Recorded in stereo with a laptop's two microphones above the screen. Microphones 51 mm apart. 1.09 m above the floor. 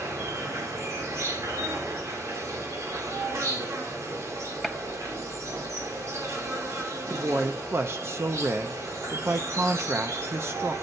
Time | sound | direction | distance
0.0 | an insect | 70° right (ahead or behind) | 2.5 m
4.6 | a gunshot | centre (ahead or behind) | 0.9 m
7.1 | a man speaking | 55° right (ahead or behind) | 0.6 m